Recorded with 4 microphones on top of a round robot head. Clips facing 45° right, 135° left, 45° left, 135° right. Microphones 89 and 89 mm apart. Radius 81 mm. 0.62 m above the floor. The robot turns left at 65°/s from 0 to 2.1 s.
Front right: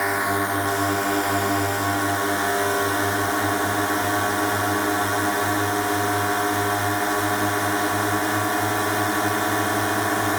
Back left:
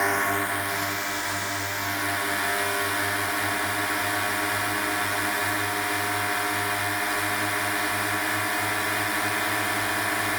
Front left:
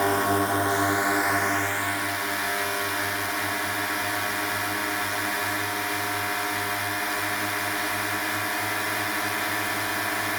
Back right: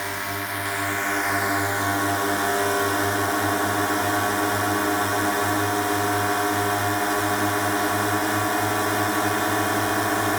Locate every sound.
0.0 s a drone: 40° left; by 10.4 s 95° right